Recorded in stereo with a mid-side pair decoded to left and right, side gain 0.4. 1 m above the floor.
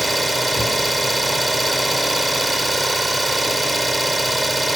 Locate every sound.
0.0 s an engine running: 20° right, 2.5 m